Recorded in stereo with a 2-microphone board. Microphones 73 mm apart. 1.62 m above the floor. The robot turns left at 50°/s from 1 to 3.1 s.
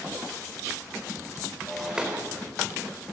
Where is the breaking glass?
5° left, 3.5 m; by 2.3 s 30° right, 3.5 m.